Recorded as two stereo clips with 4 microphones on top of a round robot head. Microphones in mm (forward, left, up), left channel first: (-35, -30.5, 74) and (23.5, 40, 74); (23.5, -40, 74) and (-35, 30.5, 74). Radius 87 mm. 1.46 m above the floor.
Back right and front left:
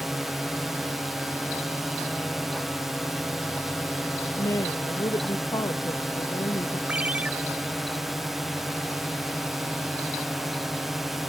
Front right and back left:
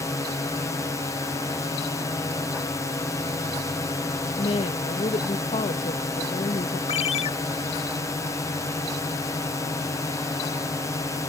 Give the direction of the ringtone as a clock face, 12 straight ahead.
1 o'clock.